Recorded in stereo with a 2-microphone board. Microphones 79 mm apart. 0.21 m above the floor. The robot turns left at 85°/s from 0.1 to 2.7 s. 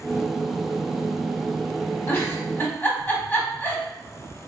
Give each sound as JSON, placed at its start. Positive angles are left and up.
{"t": 2.1, "sound": "a giggle", "side_deg": 30, "distance_m": 0.9}